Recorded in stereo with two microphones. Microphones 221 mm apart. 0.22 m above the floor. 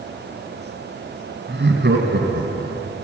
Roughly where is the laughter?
Right.